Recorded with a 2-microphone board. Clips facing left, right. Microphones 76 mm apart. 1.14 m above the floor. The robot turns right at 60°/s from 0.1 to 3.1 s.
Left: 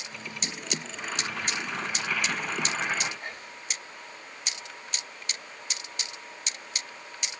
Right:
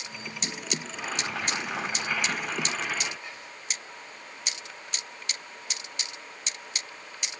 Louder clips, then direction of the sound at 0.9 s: Right 2 dB; 100° right.